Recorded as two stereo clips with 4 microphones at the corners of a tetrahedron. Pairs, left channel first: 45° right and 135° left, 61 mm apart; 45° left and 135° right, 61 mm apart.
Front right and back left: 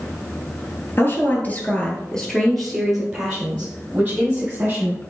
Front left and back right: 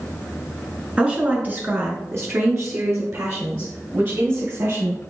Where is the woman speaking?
70° right, 1.4 m; by 5.0 s 165° right, 3 m.